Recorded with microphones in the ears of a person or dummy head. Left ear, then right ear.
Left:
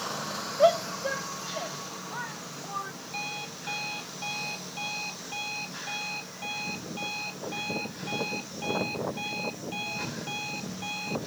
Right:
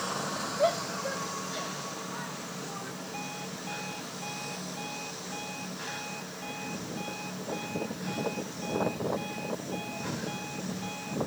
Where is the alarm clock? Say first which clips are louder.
Left 7 dB; 45° left (ahead or behind).